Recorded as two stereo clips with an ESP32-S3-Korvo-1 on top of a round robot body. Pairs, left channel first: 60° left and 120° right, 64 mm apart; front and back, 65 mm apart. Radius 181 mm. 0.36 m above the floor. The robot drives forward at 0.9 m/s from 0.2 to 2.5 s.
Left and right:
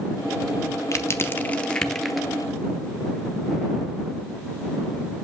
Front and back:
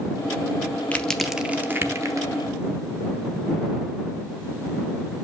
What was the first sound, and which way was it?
Crushing, 60° left.